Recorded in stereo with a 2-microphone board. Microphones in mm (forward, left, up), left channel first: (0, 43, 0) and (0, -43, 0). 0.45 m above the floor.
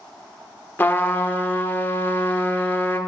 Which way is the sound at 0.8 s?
25° left (ahead or behind).